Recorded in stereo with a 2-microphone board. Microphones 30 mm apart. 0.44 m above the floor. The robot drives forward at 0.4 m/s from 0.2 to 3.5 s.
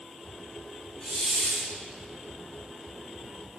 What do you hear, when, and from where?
1.0 s a hiss: 75° left (ahead or behind), 5 m; by 1.7 s 70° left (ahead or behind), 5 m